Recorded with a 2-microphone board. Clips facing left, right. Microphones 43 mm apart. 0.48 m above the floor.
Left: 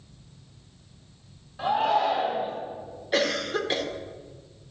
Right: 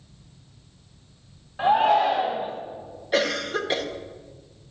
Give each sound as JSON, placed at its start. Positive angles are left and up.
{"t": 1.6, "sound": "a shout", "side_deg": -25, "distance_m": 2.5}
{"t": 3.1, "sound": "a cough", "side_deg": -5, "distance_m": 1.3}